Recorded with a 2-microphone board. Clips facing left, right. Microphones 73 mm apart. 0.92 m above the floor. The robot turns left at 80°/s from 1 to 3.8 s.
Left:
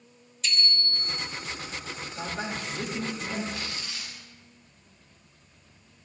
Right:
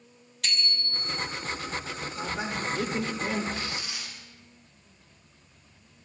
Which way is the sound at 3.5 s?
40° right (ahead or behind).